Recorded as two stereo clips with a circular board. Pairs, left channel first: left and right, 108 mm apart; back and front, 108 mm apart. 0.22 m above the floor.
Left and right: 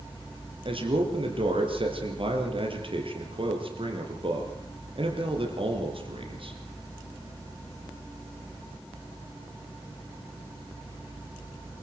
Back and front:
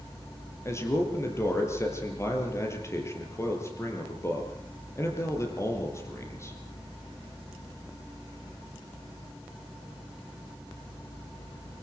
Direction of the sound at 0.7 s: 120° right.